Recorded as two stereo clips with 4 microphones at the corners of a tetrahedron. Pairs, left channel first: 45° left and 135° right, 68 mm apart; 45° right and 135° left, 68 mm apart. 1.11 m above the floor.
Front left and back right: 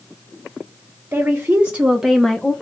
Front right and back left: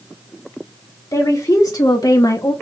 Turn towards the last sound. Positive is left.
turn(degrees=-20)